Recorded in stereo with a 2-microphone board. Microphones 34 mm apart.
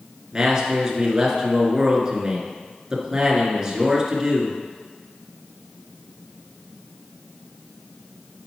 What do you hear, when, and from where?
0.3 s a man speaking: 15° right (ahead or behind), 1.8 m